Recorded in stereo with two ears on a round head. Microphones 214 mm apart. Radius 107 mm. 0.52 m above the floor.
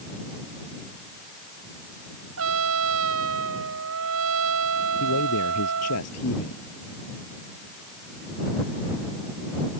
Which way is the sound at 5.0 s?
70° left (ahead or behind).